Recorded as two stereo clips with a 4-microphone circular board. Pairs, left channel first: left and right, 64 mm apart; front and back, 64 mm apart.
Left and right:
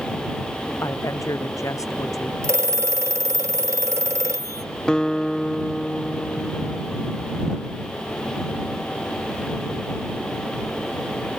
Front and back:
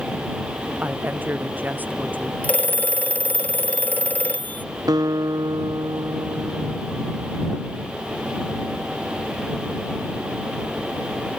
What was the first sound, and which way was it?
A woman speaking, 120° left.